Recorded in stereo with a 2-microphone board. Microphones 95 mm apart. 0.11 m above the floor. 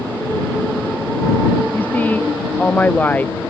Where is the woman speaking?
15° left (ahead or behind).